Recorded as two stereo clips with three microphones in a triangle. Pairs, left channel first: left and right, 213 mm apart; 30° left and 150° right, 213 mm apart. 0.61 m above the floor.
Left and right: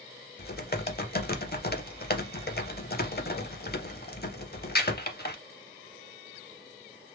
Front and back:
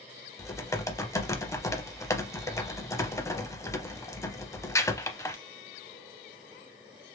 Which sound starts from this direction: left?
Typing on a keyboard, at 0.4 s.